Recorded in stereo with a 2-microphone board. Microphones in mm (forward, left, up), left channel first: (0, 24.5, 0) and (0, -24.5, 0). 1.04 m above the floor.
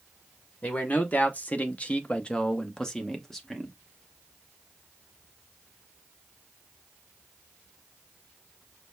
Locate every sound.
0.6 s a man speaking: 30° left (ahead or behind), 0.9 m; by 3.7 s 5° left (ahead or behind), 1.3 m